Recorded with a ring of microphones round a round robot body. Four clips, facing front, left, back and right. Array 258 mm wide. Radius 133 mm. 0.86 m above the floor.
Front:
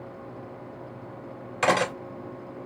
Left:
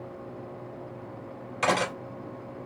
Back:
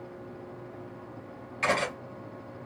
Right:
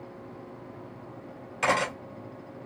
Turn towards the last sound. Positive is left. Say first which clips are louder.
# even, front 5 dB
turn(degrees=5)